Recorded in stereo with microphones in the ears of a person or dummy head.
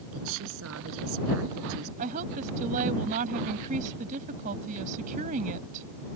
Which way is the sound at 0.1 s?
75° right (ahead or behind).